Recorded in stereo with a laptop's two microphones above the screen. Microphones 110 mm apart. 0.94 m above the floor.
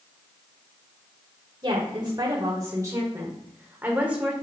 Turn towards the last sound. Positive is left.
turn(degrees=-10)  # may be behind; listen again after turning